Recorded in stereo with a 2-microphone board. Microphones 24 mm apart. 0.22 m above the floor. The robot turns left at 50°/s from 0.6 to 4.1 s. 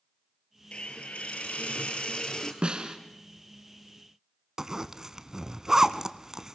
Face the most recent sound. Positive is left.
turn(degrees=-30)  # may be behind; listen again after turning